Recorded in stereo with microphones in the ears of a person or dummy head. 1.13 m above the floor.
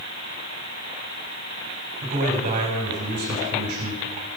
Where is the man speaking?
40° right (ahead or behind), 4 m.